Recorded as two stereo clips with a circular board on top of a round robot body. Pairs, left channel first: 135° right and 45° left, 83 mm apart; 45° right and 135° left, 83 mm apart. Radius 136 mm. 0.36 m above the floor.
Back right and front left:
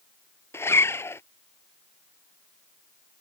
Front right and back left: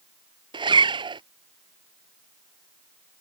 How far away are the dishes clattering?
No dishes clattering in this recording.